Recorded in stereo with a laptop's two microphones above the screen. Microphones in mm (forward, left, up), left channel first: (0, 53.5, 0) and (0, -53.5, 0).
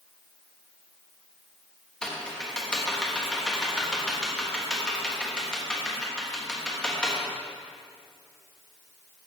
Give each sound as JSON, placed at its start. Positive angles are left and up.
{"t": 2.0, "sound": "typing on a keyboard", "side_deg": 5, "distance_m": 1.0}